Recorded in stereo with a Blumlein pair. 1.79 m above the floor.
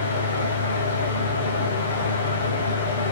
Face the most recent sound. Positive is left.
turn(degrees=65)